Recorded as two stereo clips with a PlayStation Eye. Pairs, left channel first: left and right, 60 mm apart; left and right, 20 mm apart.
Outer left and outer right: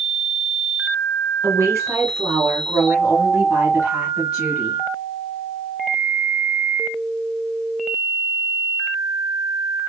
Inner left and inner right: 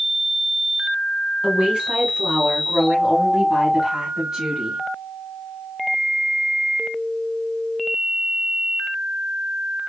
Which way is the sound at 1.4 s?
45° right (ahead or behind).